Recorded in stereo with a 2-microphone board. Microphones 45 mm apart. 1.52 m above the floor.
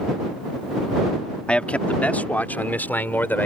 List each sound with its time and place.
1.5 s a man speaking: 25° left (ahead or behind); by 3.5 s 45° left (ahead or behind)